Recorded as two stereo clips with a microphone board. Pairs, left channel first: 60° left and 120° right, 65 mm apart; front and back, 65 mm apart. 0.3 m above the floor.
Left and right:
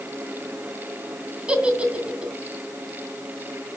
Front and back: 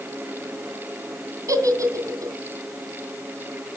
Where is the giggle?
170° left, 2.5 m.